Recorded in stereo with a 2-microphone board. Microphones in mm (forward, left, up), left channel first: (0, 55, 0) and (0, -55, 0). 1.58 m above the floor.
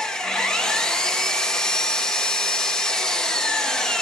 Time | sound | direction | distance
0.0 | an engine running | 5° left (ahead or behind) | 0.9 m